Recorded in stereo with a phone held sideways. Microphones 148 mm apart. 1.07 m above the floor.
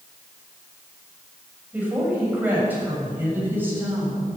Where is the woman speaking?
10° right (ahead or behind), 6.5 m; by 4.3 s 15° right (ahead or behind), 8 m.